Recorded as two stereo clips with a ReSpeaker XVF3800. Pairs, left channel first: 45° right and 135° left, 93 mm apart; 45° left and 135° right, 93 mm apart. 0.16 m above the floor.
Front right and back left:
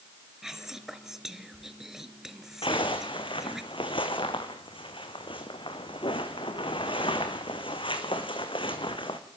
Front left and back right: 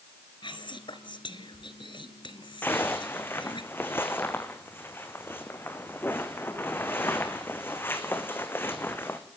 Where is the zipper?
20° right, 2.0 m.